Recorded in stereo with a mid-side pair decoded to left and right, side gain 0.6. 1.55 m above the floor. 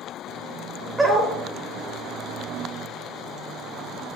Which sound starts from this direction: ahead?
A dog barking, at 1.0 s.